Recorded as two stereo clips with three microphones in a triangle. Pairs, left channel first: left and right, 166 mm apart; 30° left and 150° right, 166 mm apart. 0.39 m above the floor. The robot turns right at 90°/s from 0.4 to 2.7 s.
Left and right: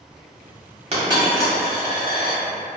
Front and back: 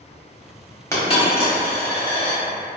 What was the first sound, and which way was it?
A dropped coin, 45° right.